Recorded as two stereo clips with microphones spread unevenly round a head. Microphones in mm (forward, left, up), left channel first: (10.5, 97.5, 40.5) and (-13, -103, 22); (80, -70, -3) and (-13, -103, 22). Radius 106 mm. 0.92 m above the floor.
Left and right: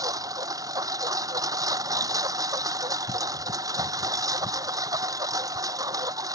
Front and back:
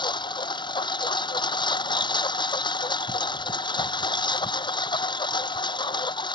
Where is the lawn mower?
20° right.